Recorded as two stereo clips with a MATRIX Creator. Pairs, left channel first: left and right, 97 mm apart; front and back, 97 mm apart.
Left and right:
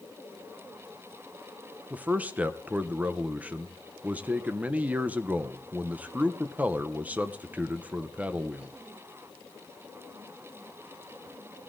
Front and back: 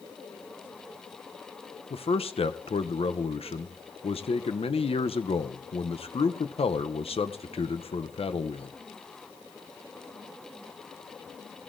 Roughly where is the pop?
I don't hear a pop.